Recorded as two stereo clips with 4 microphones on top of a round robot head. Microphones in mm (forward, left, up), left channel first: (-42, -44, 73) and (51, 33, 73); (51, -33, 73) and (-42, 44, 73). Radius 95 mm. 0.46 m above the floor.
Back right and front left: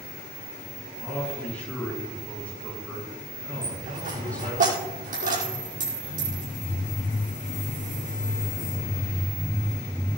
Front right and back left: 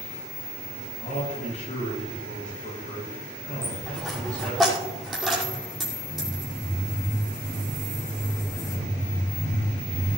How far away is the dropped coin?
About 5.5 m.